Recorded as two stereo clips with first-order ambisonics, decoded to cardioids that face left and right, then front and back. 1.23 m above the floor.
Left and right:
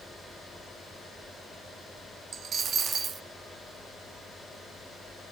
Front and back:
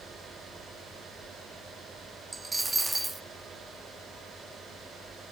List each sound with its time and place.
2.3 s a dropped coin: 110° right, 0.7 m